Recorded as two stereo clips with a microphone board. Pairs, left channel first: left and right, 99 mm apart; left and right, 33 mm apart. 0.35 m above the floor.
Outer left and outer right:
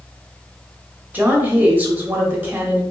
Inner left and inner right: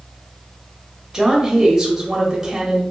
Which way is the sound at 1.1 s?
20° right (ahead or behind).